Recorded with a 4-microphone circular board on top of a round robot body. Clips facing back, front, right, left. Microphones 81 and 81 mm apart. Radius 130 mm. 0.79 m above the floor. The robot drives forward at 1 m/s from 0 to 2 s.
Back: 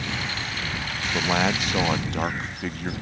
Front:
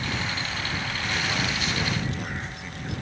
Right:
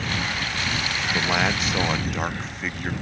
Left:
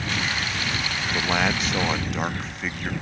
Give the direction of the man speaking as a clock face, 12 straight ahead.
6 o'clock.